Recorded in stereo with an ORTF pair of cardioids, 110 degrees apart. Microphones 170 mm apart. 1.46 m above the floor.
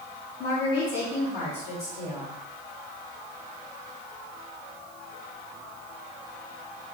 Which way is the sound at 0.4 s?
65° left.